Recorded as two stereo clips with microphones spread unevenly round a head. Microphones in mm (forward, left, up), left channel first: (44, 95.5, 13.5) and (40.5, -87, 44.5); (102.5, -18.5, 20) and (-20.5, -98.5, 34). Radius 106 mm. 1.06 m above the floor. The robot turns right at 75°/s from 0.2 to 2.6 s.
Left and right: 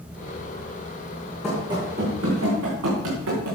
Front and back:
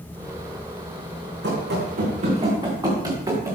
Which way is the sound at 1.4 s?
Straight behind.